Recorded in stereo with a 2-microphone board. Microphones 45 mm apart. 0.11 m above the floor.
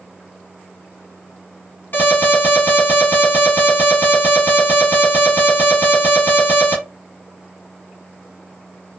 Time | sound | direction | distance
1.9 | an alarm | 45° left (ahead or behind) | 1.6 m